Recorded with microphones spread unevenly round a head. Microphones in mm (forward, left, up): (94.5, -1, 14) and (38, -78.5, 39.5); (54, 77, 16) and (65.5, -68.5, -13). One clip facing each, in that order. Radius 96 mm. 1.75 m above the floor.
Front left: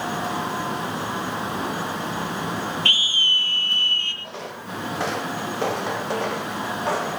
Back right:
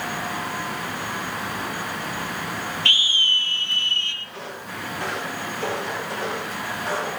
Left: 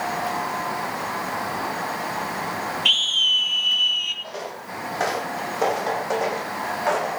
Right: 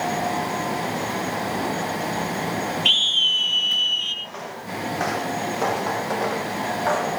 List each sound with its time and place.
2.9 s a scream: 5° left, 5 m; by 4.1 s 15° left, 5 m
4.2 s footsteps: 55° left, 4.5 m; by 7.2 s 25° left, 7 m